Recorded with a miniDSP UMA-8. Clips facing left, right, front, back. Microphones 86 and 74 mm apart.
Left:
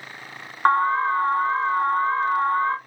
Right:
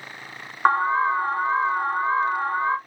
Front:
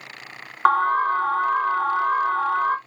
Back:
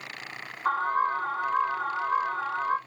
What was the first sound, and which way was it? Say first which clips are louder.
An alarm: left 1 dB, front 7 dB; 5° right.